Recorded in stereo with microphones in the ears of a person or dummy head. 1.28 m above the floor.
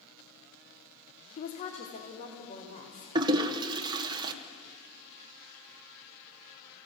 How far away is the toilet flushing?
About 1.0 m.